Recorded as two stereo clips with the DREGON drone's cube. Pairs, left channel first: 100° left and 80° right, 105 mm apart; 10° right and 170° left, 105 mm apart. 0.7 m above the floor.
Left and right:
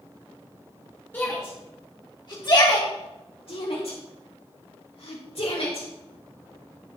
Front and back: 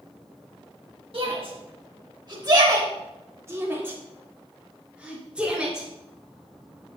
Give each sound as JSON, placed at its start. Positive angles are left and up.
{"t": 1.1, "sound": "a shout", "azimuth_deg": 165, "distance_m": 1.5}